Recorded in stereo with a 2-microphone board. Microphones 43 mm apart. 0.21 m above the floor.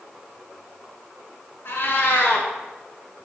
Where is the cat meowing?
60° left (ahead or behind), 0.7 m.